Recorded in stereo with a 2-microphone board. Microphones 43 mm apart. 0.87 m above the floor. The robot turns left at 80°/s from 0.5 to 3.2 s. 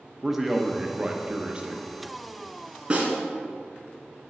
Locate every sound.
0.2 s a man speaking: 5° right (ahead or behind), 0.7 m; by 1.9 s 20° right (ahead or behind), 0.7 m
2.9 s a snare drum: 35° right (ahead or behind), 2.5 m; by 3.1 s 50° right (ahead or behind), 2.5 m